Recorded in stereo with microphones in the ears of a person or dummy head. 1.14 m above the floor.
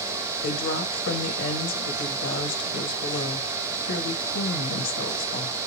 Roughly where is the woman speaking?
Left.